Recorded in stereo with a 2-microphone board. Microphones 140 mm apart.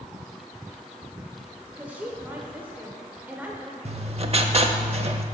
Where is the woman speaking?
10° right (ahead or behind), 0.9 m.